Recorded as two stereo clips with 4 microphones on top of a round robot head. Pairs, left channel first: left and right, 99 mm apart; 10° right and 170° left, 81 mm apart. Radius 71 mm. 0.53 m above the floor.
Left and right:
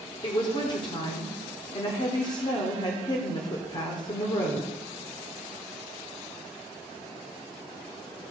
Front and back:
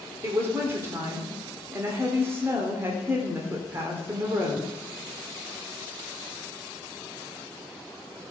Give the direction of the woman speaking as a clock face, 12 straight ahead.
8 o'clock.